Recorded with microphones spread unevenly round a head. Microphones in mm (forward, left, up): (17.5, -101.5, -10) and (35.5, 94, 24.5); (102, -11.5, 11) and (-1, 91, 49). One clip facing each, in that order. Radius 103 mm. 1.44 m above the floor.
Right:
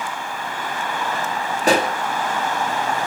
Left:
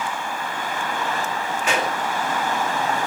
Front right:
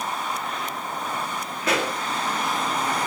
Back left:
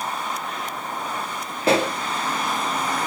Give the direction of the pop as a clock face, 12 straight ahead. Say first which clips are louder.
Right 7 dB, back left 6 dB; 5 o'clock.